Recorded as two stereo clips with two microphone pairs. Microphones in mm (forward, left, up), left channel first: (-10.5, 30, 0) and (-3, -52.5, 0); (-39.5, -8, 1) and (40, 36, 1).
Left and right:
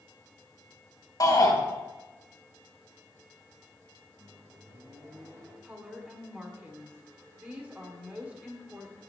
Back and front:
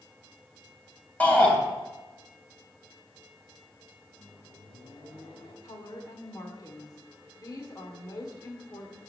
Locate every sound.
1.2 s a shout: 135° left, 3 m
4.2 s a microwave: 135° right, 2.5 m
5.6 s a woman speaking: 150° right, 1.4 m